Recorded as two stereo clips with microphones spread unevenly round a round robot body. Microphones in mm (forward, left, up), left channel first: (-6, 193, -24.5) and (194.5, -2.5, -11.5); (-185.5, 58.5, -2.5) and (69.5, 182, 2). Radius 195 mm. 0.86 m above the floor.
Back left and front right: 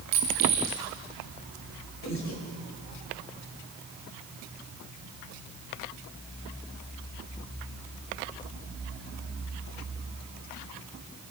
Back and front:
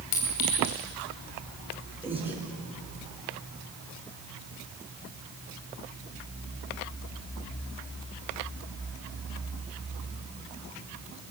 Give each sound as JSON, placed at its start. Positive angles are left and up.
{"t": 0.1, "sound": "a clink", "azimuth_deg": -115, "distance_m": 3.5}
{"t": 2.0, "sound": "breathing", "azimuth_deg": 110, "distance_m": 5.5}